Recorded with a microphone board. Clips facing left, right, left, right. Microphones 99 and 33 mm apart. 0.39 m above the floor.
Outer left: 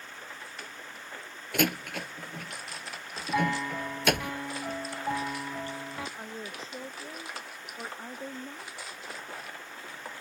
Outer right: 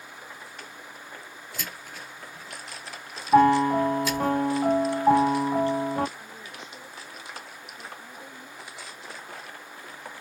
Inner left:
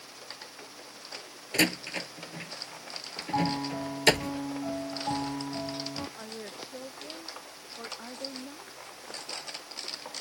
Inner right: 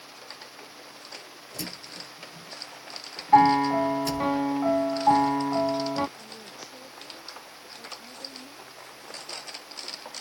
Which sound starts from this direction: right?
A piano, at 3.3 s.